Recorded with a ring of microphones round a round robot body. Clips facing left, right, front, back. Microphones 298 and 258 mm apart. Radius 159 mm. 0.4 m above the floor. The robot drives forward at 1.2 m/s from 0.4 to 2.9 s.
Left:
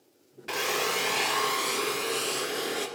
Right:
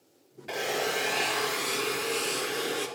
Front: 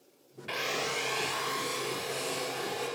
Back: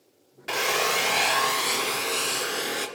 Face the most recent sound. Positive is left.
turn(degrees=175)